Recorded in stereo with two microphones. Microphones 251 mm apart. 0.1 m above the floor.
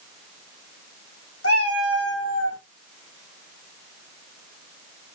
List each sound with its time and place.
1.4 s a cat meowing: 65° left (ahead or behind), 3 m